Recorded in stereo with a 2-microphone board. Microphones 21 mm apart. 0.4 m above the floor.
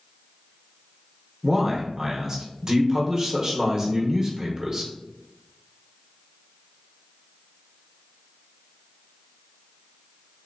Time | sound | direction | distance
1.4 | a man speaking | 25° right (ahead or behind) | 1.0 m